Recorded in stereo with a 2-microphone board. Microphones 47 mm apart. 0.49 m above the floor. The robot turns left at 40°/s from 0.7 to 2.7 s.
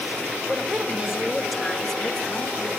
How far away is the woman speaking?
About 1.2 m.